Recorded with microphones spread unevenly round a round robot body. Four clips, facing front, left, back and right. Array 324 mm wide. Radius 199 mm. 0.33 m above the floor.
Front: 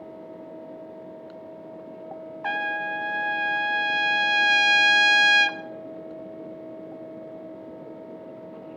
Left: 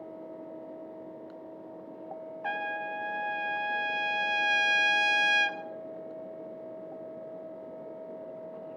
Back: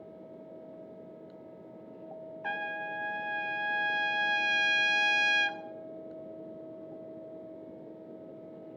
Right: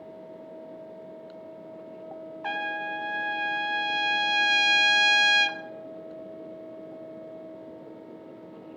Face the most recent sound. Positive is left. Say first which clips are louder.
# right 2 dB, front 8 dB
turn(degrees=30)